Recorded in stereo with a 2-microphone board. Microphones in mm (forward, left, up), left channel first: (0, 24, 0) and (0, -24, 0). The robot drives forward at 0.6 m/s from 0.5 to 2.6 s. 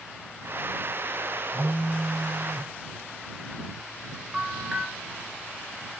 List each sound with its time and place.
1.5 s a phone buzzing: 35° right (ahead or behind), 4 m; by 2.7 s 30° right (ahead or behind), 4.5 m
4.3 s a bell: 15° right (ahead or behind), 2.5 m